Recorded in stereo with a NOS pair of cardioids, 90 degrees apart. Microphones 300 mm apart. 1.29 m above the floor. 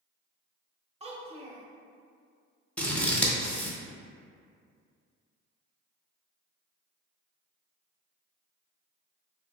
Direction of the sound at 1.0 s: 20° right.